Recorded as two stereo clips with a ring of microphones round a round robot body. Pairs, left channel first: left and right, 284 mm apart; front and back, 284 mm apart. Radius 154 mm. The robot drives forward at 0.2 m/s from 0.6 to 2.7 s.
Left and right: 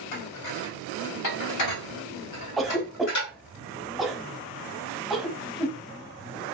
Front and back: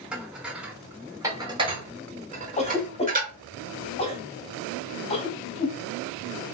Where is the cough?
Straight ahead, 0.7 m.